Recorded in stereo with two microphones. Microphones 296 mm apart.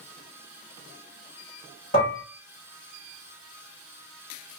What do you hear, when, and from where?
1.9 s dishes clattering: 30° left (ahead or behind), 1.6 m